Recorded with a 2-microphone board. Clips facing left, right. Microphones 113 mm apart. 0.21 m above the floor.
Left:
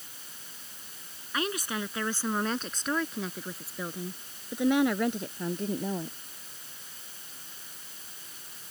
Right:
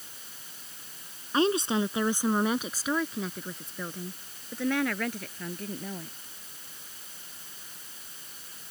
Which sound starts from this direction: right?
A woman speaking, at 1.3 s.